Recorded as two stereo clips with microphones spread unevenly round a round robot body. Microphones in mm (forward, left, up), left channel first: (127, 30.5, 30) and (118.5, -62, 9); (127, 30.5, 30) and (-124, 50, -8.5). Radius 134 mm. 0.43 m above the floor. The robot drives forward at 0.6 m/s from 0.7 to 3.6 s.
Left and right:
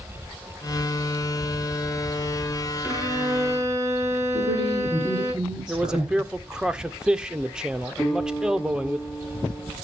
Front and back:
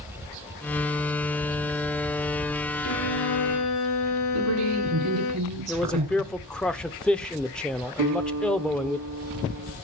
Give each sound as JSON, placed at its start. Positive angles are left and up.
{"t": 2.8, "sound": "a violin", "azimuth_deg": -30, "distance_m": 5.5}
{"t": 4.3, "sound": "a woman speaking", "azimuth_deg": -155, "distance_m": 4.5}
{"t": 5.7, "sound": "a man speaking", "azimuth_deg": -110, "distance_m": 0.7}
{"t": 8.0, "sound": "a guitar", "azimuth_deg": 175, "distance_m": 3.5}